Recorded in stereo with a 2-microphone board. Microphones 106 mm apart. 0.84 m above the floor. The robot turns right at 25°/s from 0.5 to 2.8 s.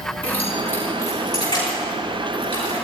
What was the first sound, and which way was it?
Keys jangling, 15° left (ahead or behind).